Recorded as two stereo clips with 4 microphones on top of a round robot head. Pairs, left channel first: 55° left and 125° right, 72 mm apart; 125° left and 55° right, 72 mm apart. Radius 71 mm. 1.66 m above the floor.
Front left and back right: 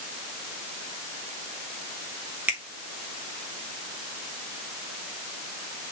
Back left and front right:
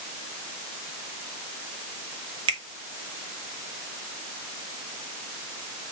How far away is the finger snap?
About 1.5 m.